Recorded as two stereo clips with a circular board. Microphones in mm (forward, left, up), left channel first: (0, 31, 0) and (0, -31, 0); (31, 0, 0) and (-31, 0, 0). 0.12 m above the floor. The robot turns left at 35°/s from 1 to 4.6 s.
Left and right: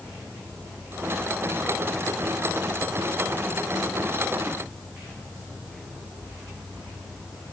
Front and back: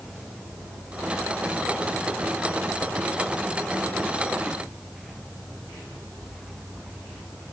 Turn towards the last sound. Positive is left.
No sound to turn to.